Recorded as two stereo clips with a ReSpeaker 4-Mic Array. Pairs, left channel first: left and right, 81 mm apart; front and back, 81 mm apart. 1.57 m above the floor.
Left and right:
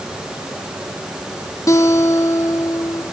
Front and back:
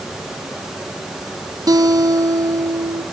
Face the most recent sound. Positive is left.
turn(degrees=140)